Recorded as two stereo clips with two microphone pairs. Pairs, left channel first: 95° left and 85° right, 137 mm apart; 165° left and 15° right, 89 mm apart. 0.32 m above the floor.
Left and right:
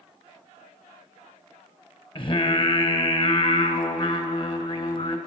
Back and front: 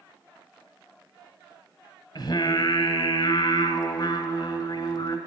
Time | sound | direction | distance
2.1 | singing | 145° left | 1.0 m